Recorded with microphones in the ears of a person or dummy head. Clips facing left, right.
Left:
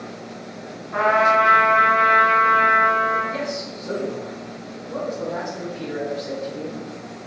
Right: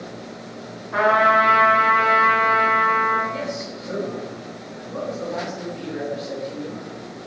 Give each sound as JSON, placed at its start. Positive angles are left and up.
{"t": 0.9, "sound": "a trumpet", "side_deg": -50, "distance_m": 1.2}
{"t": 3.3, "sound": "a man speaking", "side_deg": 75, "distance_m": 1.6}